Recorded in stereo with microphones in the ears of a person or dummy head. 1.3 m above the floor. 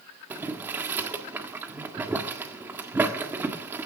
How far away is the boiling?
About 1.6 m.